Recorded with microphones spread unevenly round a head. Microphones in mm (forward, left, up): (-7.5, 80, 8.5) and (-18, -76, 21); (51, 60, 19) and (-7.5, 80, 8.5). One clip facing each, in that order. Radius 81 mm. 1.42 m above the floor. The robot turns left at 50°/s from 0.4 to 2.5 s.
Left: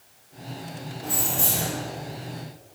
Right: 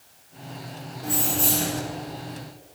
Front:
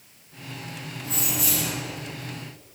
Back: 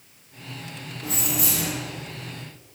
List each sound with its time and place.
1.0 s keys jangling: straight behind, 3.5 m; by 1.7 s 150° left, 3.5 m